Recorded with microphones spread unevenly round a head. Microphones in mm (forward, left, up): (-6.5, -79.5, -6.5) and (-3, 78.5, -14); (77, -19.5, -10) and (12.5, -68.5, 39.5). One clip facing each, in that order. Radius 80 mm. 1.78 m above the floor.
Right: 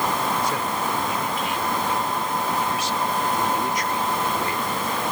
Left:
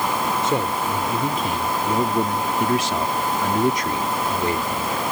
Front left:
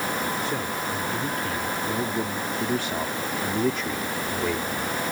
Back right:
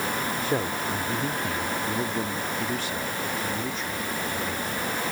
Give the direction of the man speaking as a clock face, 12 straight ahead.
7 o'clock.